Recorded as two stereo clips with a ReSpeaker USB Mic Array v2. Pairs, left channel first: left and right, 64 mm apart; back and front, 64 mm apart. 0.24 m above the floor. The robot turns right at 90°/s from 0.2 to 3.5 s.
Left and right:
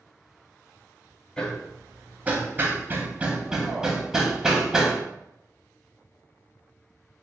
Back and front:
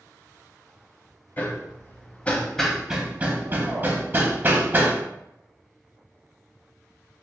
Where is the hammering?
150° left, 0.6 m; by 5.0 s 20° right, 0.6 m.